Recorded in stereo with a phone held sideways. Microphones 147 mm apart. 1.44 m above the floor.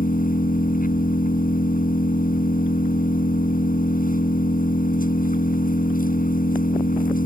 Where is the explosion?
No explosion in this recording.